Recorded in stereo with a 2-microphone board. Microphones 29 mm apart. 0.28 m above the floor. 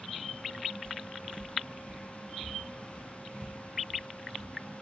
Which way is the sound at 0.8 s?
45° left (ahead or behind).